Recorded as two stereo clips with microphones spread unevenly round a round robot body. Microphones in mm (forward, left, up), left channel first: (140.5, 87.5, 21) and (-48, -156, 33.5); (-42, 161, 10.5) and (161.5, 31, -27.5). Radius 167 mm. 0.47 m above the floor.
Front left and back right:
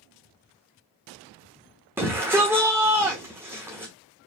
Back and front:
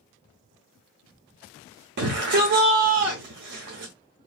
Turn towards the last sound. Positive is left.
turn(degrees=-45)